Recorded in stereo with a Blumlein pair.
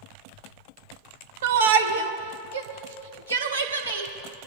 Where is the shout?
55° right, 1.1 m; by 4.1 s 80° right, 3 m.